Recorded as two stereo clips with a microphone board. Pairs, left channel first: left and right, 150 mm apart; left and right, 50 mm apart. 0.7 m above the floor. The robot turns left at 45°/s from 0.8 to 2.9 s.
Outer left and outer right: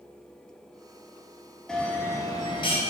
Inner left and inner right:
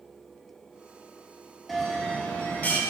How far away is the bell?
About 1.1 m.